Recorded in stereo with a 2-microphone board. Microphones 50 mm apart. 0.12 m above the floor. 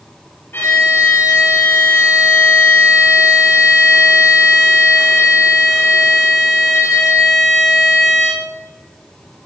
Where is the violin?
45° left (ahead or behind), 6 m.